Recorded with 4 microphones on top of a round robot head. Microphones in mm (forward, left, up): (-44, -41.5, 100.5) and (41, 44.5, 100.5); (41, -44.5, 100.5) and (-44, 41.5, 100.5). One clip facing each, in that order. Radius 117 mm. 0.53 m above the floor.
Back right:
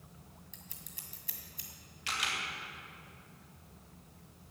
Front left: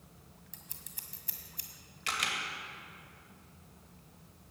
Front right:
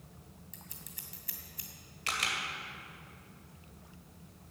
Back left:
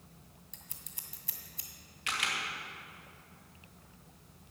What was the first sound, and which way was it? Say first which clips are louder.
Scissors: back right 1 dB, front right 3 dB; 80° left.